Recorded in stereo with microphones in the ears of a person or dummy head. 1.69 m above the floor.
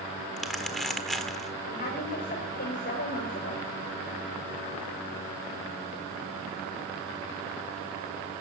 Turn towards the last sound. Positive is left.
turn(degrees=60)  # may be behind; listen again after turning